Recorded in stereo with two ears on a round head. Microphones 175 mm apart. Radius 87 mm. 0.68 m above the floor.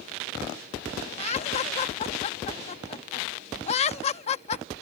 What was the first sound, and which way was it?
Laughter, 35° left (ahead or behind).